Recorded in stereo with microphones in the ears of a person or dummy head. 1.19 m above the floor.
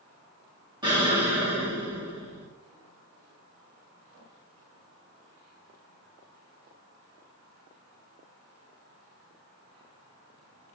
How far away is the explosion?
About 2 m.